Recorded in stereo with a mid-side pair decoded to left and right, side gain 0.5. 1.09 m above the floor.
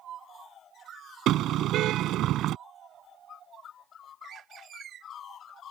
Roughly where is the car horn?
Right.